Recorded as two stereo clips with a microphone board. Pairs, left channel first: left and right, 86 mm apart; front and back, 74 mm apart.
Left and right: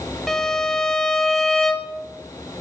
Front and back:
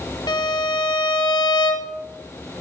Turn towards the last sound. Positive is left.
turn(degrees=5)